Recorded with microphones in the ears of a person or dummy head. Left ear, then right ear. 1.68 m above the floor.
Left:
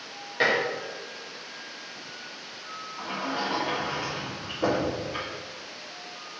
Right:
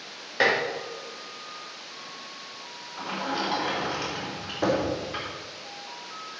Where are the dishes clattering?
30° right (ahead or behind), 3 m.